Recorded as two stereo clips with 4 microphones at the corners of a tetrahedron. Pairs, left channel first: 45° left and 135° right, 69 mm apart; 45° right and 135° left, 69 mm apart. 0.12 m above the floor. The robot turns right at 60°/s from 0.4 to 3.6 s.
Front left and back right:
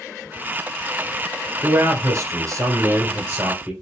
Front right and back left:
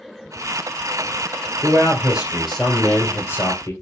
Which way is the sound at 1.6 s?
175° left.